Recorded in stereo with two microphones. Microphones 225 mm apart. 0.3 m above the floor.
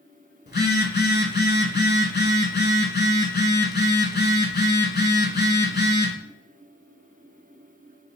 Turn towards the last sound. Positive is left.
turn(degrees=50)  # may be behind; listen again after turning